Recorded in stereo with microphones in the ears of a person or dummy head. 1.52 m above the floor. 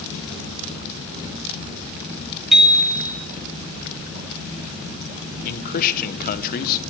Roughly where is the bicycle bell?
Centre.